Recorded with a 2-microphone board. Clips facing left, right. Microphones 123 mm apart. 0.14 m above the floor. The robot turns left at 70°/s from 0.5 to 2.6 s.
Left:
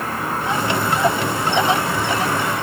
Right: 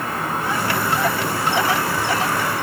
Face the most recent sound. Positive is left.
No sound to turn to.